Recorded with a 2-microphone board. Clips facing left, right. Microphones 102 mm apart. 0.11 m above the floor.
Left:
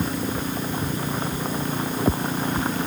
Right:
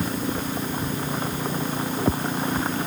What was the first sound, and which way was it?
Only background noise.